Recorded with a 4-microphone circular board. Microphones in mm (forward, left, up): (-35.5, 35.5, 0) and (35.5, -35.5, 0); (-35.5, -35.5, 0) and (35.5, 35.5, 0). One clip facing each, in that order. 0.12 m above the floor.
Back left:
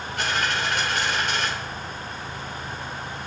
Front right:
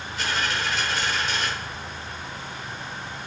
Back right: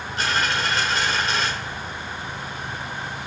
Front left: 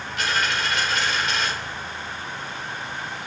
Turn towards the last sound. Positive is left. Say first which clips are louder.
# back left 2 dB, back right 1 dB
turn(degrees=170)